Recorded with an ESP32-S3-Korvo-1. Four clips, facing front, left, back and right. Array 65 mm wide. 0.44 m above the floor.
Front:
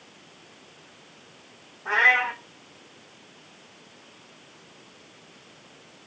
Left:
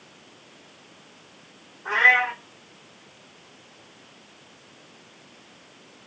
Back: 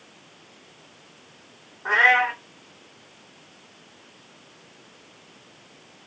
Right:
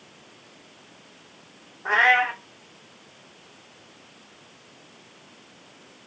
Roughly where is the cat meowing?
Behind right.